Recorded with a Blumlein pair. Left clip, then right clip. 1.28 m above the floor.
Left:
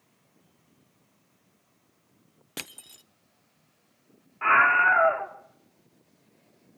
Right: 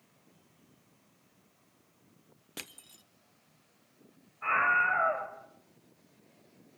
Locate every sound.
2.6 s crushing: 20° left, 0.5 m
4.4 s a scream: 40° left, 3 m